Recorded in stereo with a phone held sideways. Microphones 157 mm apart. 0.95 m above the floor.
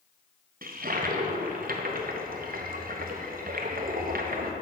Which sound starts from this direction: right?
A toilet flushing, at 0.6 s.